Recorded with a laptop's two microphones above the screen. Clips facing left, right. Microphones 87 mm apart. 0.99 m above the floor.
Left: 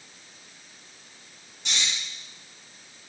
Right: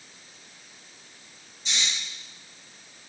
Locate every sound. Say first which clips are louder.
1.6 s snoring: even; 75° left (ahead or behind), 3.5 m